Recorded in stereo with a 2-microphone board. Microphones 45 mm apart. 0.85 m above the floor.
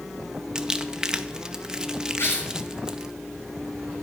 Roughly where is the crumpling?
Centre.